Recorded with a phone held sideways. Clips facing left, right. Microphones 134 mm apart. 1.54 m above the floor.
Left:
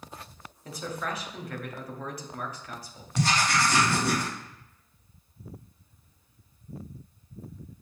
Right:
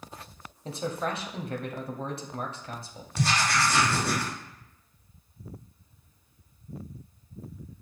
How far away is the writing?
About 2 m.